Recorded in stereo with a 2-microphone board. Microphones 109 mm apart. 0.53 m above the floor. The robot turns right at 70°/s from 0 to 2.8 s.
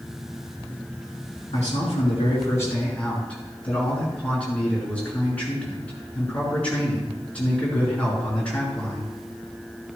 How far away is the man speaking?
About 6.5 m.